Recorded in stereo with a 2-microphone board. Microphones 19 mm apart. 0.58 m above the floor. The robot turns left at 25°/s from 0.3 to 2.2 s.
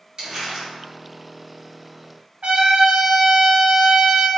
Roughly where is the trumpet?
Right.